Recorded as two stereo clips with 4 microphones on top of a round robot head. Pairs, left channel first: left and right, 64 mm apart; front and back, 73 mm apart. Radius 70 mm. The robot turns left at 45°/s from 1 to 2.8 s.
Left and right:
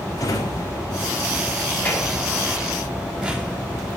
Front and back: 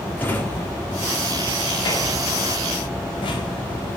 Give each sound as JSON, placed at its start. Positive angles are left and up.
{"t": 0.2, "sound": "a drawer", "azimuth_deg": 65, "distance_m": 1.9}